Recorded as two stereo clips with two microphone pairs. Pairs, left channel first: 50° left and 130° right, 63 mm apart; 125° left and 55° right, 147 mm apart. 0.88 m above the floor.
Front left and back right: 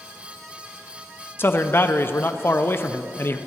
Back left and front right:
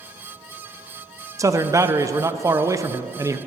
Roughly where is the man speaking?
Ahead.